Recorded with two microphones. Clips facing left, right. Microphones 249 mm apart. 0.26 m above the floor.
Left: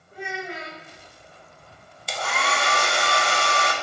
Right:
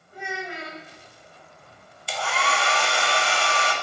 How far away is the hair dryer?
About 0.5 m.